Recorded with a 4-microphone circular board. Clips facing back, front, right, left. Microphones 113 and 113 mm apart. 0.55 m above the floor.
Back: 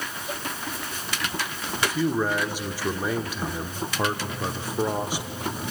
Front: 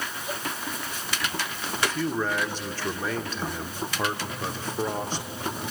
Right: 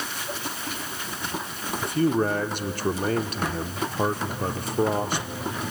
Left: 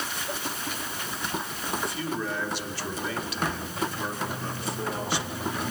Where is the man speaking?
105° right, 1.0 m.